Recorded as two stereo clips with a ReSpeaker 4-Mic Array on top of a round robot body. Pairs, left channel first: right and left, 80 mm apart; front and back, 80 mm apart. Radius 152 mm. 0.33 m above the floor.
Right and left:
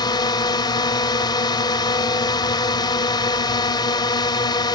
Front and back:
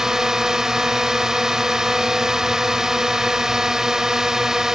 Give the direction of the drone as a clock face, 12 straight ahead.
3 o'clock.